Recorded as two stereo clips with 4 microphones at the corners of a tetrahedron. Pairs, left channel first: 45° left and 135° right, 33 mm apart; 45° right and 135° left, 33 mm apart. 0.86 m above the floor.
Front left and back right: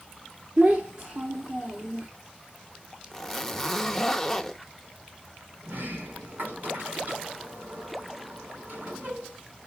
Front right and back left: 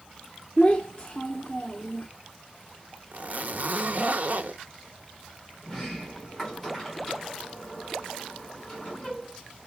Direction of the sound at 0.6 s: 120° right.